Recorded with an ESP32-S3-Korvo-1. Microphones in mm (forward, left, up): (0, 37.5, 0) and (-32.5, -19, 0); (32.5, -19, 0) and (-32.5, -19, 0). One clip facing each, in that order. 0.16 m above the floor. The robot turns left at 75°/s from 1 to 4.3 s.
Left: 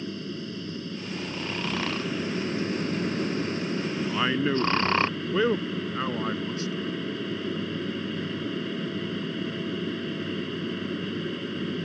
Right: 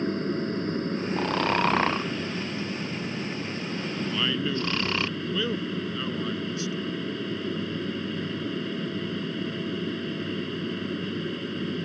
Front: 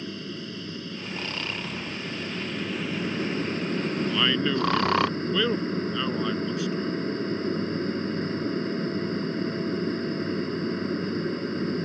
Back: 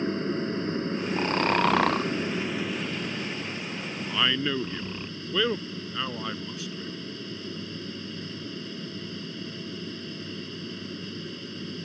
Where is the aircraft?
140° right; by 11.8 s 30° right.